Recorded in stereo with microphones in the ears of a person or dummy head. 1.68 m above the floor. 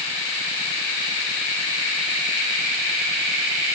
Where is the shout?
I don't hear a shout.